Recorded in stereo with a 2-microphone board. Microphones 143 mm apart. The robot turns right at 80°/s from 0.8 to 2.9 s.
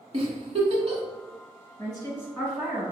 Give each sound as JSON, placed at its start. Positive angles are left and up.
{"t": 0.1, "sound": "a giggle", "side_deg": -45, "distance_m": 0.9}
{"t": 1.8, "sound": "a woman speaking", "side_deg": 35, "distance_m": 1.9}